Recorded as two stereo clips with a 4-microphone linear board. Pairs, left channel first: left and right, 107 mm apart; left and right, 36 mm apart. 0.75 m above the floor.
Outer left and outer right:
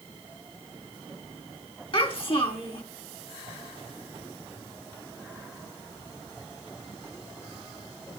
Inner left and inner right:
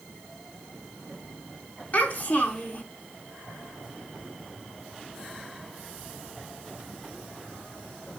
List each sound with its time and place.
1.9 s a child speaking: 50° left (ahead or behind), 4 m